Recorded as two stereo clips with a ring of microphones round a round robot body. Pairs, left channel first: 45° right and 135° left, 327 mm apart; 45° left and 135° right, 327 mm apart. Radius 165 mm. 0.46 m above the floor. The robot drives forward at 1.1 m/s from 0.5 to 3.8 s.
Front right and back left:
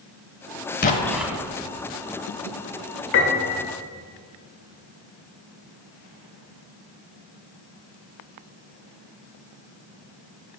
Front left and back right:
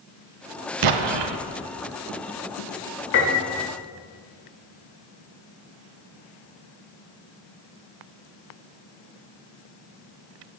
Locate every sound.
0.8 s an explosion: 105° right, 0.6 m; by 1.4 s 145° right, 1.0 m
3.1 s a piano: straight ahead, 1.4 m; by 3.7 s 5° left, 0.9 m